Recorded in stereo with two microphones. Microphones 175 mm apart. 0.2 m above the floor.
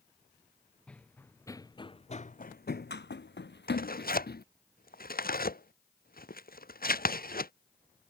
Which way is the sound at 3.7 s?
55° left (ahead or behind).